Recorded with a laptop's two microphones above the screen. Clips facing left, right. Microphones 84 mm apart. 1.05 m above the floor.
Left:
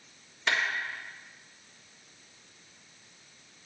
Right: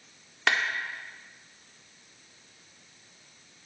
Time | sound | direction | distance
0.5 | a clap | 85° right | 2 m